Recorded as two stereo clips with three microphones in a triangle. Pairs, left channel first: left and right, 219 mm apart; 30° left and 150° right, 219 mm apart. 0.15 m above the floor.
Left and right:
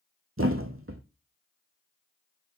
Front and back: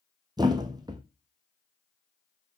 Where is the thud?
80° right, 1.1 m.